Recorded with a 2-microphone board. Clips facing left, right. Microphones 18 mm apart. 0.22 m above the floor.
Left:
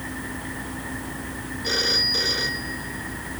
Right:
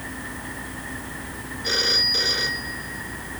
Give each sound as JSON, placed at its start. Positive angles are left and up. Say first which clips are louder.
{"t": 1.6, "sound": "a phone ringing", "louder": "right 1 dB", "side_deg": -10}